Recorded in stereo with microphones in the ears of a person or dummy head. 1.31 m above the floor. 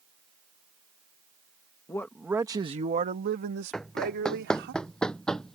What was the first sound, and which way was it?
A man speaking, 15° left (ahead or behind).